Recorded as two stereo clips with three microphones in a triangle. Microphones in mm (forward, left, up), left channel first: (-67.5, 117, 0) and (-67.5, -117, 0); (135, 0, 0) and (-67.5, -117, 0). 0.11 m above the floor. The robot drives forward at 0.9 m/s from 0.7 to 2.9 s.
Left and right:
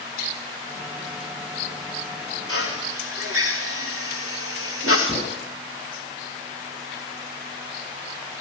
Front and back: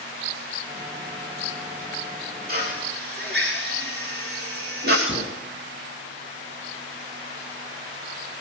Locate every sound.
2.5 s a drill: 100° right, 5 m; by 5.0 s 105° right, 5 m
5.1 s a gunshot: 30° right, 3.5 m